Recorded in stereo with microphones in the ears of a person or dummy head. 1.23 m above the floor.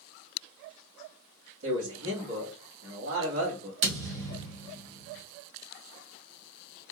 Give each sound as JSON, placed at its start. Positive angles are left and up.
{"t": 1.6, "sound": "a man speaking", "side_deg": -70, "distance_m": 2.0}
{"t": 3.8, "sound": "a thud", "side_deg": -65, "distance_m": 1.2}